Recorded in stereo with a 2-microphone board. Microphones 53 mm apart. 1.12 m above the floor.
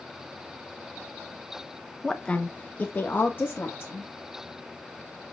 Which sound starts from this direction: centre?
A woman speaking, at 2.0 s.